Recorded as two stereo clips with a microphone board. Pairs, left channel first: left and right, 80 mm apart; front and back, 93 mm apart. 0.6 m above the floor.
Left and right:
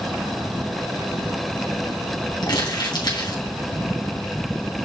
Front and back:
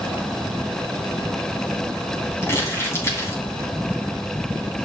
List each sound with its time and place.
2.4 s crumpling: 60° left, 3 m